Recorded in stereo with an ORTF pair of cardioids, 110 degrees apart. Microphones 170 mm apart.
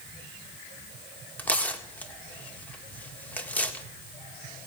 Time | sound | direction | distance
1.4 | tearing paper | 10° left | 1.7 m